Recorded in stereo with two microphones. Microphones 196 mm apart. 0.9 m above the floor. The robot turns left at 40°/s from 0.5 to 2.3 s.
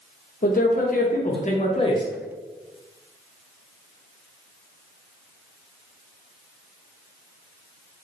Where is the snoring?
No snoring in this recording.